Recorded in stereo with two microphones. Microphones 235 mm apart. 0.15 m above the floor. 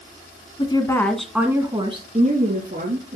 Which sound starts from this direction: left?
A woman speaking, at 0.6 s.